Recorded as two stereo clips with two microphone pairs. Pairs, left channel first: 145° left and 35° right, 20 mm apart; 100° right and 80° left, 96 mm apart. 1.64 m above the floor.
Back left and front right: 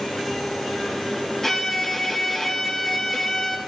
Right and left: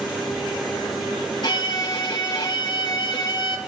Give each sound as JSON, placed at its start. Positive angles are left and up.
{"t": 1.4, "sound": "a violin", "azimuth_deg": -145, "distance_m": 3.5}